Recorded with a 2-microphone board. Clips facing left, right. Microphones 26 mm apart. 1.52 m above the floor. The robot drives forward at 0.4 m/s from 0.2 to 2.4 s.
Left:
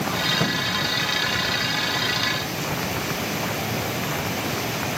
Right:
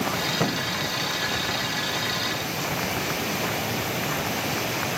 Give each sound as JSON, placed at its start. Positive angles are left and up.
{"t": 0.4, "sound": "a thud", "side_deg": -20}